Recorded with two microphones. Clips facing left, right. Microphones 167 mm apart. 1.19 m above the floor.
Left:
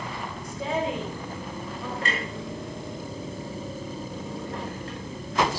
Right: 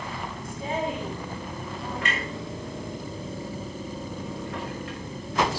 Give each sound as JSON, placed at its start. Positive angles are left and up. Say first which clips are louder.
{"t": 0.4, "sound": "a woman speaking", "louder": "left 2 dB", "side_deg": 90, "distance_m": 4.5}
{"t": 2.0, "sound": "a clunk", "louder": "even", "side_deg": 35, "distance_m": 4.0}